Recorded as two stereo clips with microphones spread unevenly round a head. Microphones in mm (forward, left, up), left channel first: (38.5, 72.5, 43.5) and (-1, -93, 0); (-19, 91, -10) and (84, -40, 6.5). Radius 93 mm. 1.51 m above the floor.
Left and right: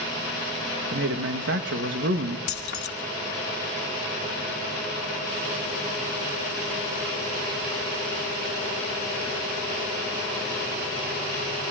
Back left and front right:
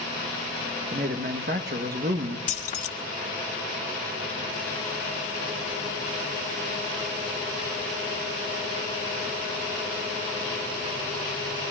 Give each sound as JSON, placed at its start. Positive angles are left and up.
{"t": 0.9, "sound": "a man speaking", "azimuth_deg": -95, "distance_m": 1.9}
{"t": 2.5, "sound": "keys jangling", "azimuth_deg": 90, "distance_m": 1.7}